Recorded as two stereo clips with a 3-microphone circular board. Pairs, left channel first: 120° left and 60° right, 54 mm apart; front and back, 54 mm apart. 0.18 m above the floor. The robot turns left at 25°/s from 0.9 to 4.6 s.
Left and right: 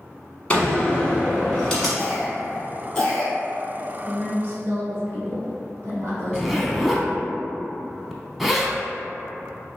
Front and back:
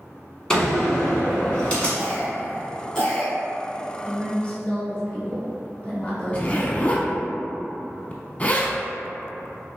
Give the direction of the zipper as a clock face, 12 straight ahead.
11 o'clock.